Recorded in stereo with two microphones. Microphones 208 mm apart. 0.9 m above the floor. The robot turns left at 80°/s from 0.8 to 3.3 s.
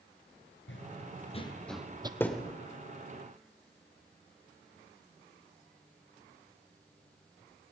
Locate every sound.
0.7 s running footsteps: 65° left (ahead or behind), 2.5 m; by 2.1 s 20° right (ahead or behind), 1.3 m
2.2 s a thud: 10° left (ahead or behind), 1.6 m; by 2.5 s 15° right (ahead or behind), 1.6 m